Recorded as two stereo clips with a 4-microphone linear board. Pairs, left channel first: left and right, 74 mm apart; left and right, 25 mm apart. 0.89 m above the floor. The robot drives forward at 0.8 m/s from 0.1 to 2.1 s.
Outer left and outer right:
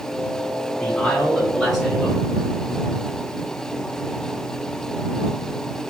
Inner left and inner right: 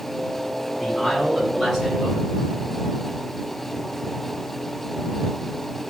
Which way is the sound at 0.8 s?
5° left (ahead or behind).